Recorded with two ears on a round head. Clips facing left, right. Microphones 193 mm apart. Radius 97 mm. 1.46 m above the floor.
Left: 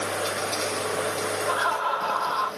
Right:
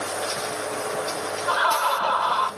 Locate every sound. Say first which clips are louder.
1.5 s laughter: right 2 dB; 75° right (ahead or behind), 1.6 m